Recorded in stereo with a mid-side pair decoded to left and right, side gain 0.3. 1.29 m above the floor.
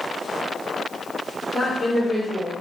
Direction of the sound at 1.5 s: 40° left.